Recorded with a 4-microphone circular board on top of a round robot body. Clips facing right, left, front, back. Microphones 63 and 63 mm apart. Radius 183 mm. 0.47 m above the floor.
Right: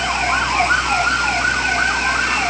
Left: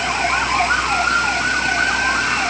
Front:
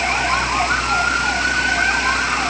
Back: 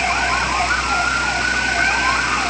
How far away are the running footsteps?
I don't hear running footsteps.